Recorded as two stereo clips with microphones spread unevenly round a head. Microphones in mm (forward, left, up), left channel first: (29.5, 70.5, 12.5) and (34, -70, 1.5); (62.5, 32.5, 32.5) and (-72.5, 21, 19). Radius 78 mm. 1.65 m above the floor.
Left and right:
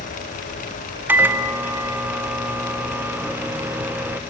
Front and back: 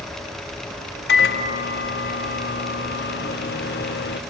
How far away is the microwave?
About 0.7 m.